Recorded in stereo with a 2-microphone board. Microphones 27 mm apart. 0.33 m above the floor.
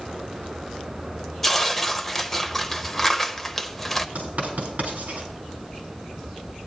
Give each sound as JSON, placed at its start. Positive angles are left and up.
{"t": 1.4, "sound": "tearing paper", "side_deg": 10, "distance_m": 0.7}
{"t": 4.2, "sound": "writing", "side_deg": -60, "distance_m": 4.0}